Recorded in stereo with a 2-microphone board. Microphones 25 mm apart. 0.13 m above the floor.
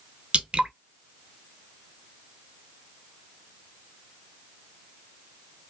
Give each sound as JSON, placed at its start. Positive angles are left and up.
{"t": 0.3, "sound": "dripping", "side_deg": -50, "distance_m": 0.6}